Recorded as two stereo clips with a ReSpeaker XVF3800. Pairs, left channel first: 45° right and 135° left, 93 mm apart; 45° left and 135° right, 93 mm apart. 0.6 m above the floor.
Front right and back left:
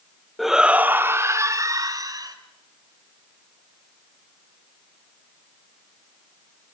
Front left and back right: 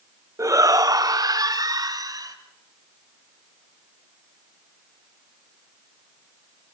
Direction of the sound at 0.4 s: 135° right.